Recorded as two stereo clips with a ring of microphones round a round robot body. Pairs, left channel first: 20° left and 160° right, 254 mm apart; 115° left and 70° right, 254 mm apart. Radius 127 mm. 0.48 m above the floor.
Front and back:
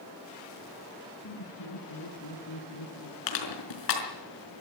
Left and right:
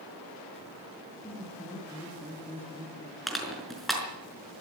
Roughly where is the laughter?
Ahead left.